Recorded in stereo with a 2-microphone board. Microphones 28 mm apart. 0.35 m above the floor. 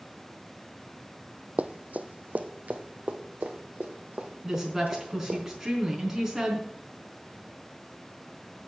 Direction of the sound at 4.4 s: 10° right (ahead or behind).